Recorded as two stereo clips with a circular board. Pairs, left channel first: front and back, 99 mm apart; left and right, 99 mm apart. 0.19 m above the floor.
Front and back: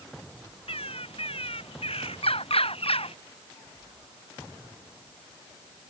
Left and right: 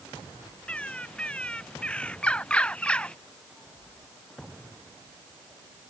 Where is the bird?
10° left.